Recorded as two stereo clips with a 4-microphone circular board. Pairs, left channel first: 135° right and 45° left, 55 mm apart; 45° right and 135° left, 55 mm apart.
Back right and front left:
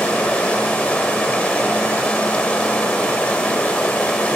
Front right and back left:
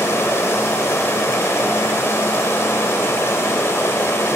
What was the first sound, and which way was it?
Running water, 70° right.